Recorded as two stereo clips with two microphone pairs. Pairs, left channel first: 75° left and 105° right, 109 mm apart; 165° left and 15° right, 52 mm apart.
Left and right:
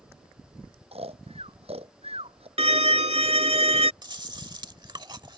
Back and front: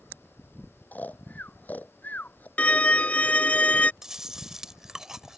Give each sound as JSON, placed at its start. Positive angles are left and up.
{"t": 0.9, "sound": "snoring", "azimuth_deg": -135}
{"t": 2.6, "sound": "a violin", "azimuth_deg": -130}
{"t": 4.0, "sound": "chewing", "azimuth_deg": -90}